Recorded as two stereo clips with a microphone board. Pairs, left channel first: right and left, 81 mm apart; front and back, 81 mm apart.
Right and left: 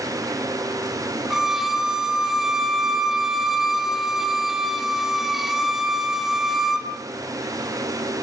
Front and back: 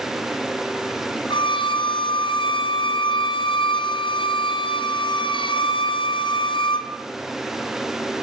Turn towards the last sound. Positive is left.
turn(degrees=5)